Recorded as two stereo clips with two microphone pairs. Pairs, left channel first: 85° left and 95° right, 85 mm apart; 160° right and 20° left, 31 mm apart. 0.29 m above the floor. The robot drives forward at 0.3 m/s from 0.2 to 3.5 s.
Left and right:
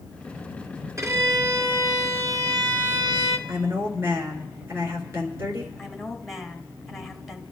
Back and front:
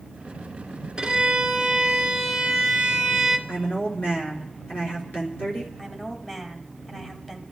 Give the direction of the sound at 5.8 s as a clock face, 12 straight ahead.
6 o'clock.